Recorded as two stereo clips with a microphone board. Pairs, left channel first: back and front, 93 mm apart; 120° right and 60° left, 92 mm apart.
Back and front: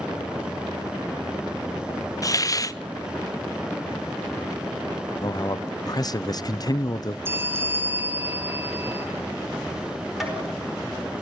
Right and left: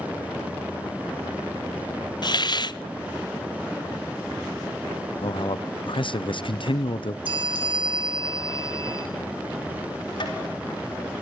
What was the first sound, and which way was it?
A hiss, 140° right.